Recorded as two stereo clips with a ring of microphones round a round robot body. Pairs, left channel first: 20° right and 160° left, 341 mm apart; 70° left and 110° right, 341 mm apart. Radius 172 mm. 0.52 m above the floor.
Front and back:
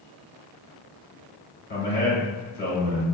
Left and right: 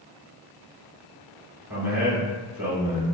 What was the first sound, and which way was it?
A man speaking, 30° right.